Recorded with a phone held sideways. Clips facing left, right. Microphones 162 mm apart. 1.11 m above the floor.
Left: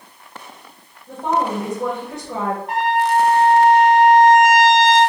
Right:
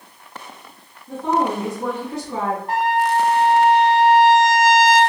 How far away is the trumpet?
About 2 m.